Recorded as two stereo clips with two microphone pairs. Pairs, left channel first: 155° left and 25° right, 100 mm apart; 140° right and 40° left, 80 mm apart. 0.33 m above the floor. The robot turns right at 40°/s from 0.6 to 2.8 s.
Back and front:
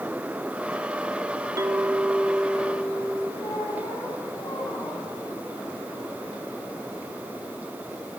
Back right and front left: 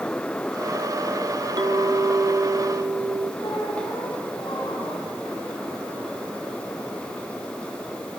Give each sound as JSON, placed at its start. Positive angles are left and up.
{"t": 1.6, "sound": "a clink", "azimuth_deg": 20, "distance_m": 0.9}
{"t": 3.4, "sound": "a squeak", "azimuth_deg": -160, "distance_m": 6.0}